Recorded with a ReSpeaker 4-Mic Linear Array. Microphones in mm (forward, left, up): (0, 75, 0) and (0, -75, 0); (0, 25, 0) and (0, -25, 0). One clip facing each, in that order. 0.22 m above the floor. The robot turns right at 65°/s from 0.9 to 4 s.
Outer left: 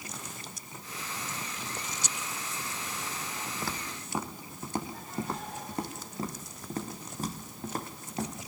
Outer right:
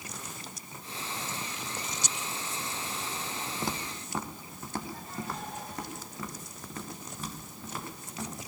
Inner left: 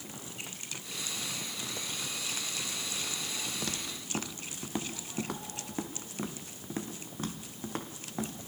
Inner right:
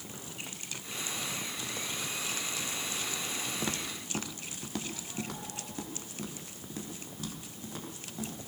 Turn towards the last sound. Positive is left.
turn(degrees=45)  # may be behind; listen again after turning